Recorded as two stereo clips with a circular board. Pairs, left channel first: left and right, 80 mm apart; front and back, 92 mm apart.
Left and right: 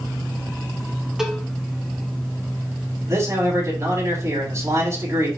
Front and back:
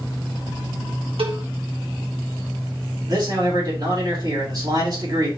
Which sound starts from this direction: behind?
A cowbell, at 1.2 s.